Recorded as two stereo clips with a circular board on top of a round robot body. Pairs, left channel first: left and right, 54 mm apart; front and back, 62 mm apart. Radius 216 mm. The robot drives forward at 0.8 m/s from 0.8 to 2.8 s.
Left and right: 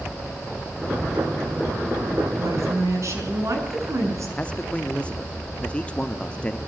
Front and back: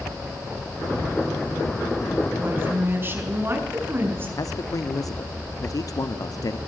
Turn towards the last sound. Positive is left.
turn(degrees=20)